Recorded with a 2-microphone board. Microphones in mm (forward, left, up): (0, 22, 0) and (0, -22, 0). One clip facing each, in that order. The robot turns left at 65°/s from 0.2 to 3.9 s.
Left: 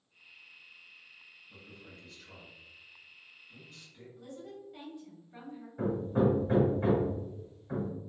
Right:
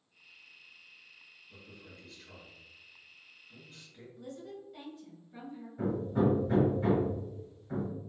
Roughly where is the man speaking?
Left.